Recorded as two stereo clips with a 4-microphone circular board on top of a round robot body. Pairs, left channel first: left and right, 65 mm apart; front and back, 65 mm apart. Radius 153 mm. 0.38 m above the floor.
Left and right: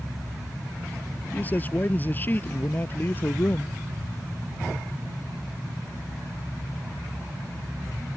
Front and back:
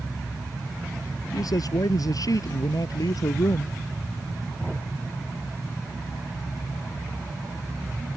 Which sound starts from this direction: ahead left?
A man speaking, at 1.3 s.